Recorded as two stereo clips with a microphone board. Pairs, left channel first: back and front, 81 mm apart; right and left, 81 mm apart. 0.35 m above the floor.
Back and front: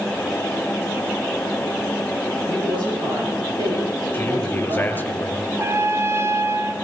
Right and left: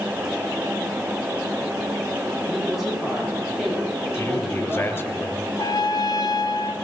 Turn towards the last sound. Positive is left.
turn(degrees=-55)